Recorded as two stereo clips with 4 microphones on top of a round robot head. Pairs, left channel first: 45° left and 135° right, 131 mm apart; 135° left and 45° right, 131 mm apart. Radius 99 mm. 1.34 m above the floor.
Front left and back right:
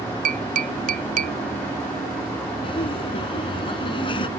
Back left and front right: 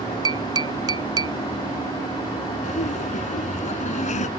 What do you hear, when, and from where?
0.2 s tapping: 105° right
2.6 s laughter: 100° left